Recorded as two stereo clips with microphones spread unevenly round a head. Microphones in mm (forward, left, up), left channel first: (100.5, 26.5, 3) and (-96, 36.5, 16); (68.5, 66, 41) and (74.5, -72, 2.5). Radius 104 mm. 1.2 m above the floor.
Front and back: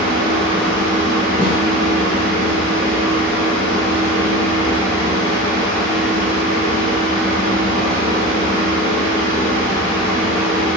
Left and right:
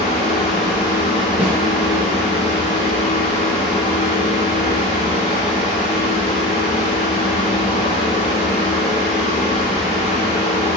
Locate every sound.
0.0 s a fan: 55° left, 1.4 m
1.4 s a snare drum: 130° right, 1.2 m